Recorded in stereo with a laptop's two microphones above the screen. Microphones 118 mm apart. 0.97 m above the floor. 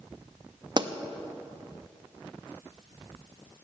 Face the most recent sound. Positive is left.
turn(degrees=-40)  # may be behind; listen again after turning